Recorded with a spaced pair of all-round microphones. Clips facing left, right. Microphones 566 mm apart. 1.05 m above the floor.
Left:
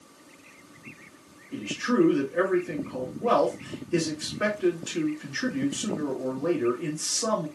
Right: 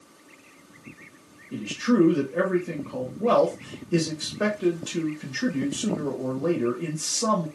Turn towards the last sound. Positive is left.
turn(degrees=-60)  # may be behind; listen again after turning